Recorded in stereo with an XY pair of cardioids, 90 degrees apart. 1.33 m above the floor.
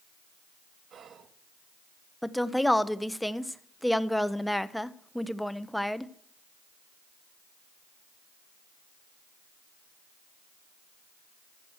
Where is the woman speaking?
5° left, 0.8 m.